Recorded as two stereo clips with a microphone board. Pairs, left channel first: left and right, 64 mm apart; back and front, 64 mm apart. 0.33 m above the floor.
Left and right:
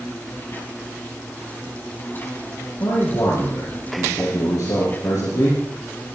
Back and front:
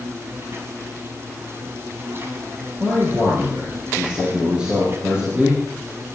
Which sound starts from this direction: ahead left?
An insect, at 0.0 s.